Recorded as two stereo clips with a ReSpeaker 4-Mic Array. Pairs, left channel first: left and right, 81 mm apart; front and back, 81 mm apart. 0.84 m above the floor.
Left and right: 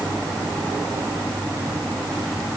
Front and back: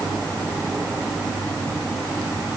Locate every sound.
Only background noise.